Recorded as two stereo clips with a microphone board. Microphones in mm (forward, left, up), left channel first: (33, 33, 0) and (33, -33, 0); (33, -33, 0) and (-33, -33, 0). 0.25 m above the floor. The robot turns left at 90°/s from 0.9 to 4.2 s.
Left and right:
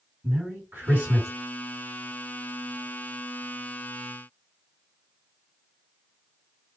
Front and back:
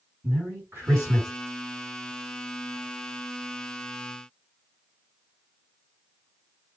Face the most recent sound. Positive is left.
turn(degrees=-80)